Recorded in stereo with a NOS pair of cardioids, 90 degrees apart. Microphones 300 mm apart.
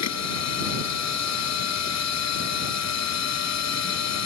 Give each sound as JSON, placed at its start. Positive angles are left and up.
{"t": 0.0, "sound": "a machine running", "azimuth_deg": 60}